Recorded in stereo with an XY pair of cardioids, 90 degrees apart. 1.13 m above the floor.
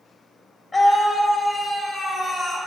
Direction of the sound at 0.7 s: 50° left.